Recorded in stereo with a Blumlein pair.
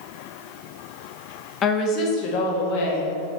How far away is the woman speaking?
About 0.9 m.